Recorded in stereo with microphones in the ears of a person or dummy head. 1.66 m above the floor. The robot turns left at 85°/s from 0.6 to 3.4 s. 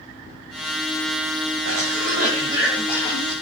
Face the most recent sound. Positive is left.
turn(degrees=120)